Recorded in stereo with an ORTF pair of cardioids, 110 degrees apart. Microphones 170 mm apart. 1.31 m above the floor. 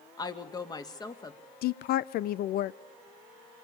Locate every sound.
0.2 s a woman speaking: 25° left, 2 m
1.6 s a woman speaking: 65° left, 0.6 m